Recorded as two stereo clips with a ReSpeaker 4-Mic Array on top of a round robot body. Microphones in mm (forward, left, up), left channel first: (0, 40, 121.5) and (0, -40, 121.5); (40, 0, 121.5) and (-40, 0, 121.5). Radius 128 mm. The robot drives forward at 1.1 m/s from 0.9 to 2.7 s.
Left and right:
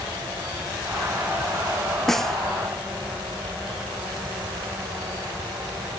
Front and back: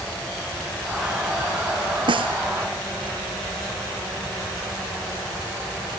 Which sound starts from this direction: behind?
A snare drum, at 2.1 s.